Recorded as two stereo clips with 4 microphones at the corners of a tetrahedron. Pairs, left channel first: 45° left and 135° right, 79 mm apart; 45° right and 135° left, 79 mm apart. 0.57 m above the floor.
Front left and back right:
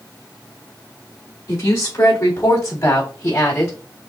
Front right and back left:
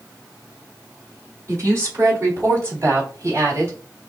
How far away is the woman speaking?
About 3 m.